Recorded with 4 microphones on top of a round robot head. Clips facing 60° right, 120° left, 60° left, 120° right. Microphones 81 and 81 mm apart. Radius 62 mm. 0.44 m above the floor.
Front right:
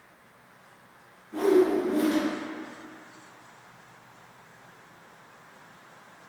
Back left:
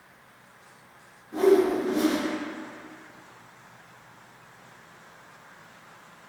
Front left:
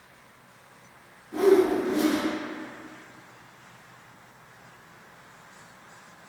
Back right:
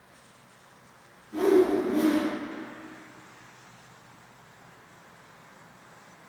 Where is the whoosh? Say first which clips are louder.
Back left 1 dB, front left 1 dB; 70° left, 1.1 m.